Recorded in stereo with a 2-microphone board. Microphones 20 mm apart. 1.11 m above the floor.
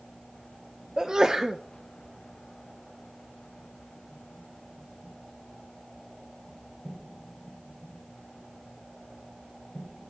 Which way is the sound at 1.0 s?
35° right (ahead or behind).